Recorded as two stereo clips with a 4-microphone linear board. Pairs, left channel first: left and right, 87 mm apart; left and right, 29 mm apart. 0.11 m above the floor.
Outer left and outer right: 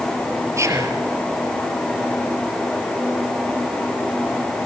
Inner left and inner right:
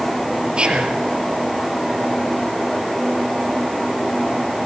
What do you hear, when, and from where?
0.6 s whispering: 35° right (ahead or behind), 2.5 m